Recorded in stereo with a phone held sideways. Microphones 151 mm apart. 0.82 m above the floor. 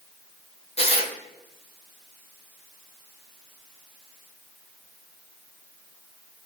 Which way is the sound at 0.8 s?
40° left (ahead or behind).